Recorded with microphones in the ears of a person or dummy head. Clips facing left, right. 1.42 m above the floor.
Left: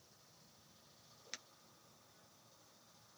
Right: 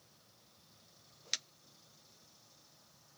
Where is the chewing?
No chewing in this recording.